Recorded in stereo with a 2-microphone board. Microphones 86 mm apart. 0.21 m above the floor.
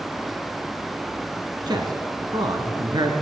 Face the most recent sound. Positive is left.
turn(degrees=-50)  # may be behind; listen again after turning